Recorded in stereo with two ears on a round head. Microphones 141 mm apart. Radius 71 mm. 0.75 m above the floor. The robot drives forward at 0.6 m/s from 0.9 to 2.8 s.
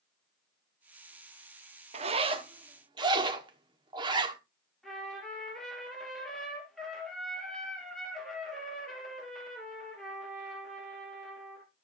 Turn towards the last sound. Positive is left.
turn(degrees=0)  # may be behind; listen again after turning